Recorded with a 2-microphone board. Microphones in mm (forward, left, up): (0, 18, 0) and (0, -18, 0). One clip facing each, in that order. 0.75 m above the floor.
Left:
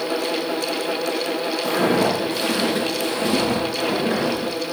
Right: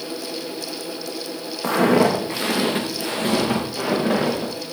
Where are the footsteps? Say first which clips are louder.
Right 3 dB; 65° right (ahead or behind), 3.5 m; by 4.5 s 45° right (ahead or behind), 6 m.